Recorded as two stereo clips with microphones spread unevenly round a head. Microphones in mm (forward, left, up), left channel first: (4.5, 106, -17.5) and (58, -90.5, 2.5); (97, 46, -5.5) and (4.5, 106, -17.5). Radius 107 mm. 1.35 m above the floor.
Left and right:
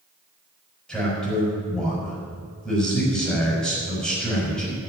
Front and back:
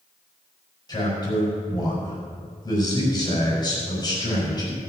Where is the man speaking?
20° left, 5 m.